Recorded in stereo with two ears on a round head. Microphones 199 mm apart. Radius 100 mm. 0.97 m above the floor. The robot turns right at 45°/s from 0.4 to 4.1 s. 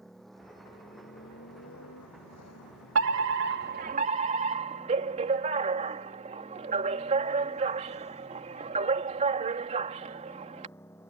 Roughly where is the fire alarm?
Right.